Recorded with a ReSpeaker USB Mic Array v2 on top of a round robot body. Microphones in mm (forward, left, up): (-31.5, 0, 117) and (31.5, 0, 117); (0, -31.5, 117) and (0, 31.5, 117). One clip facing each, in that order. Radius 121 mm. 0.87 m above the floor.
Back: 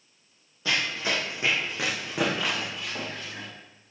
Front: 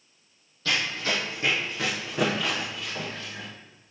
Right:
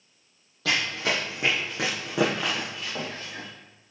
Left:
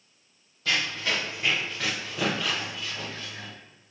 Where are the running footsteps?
105° right, 1.5 m.